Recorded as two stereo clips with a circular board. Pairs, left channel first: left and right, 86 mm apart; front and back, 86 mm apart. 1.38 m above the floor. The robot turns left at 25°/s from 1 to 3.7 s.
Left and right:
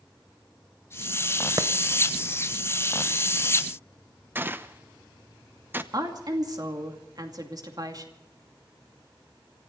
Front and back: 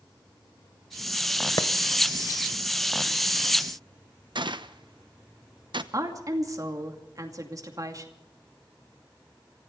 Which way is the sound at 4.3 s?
155° right.